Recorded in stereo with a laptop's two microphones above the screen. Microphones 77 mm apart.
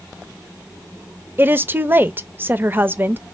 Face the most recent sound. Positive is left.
turn(degrees=-25)  # may be behind; listen again after turning